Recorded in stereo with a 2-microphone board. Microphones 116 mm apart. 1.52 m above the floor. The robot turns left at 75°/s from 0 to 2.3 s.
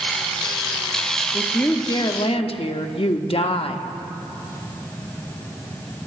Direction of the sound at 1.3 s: 175° right.